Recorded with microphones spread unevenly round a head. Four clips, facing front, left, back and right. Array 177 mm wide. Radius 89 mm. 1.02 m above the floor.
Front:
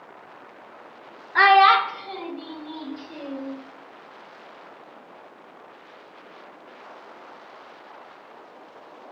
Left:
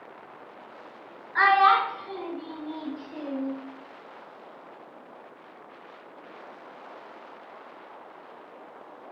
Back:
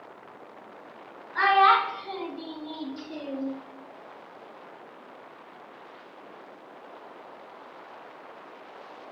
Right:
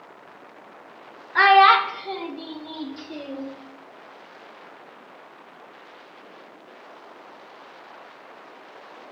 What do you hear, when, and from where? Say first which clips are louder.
1.4 s a child speaking: right 5 dB, front 5 dB; 35° right, 0.6 m; by 3.5 s 100° right, 2.5 m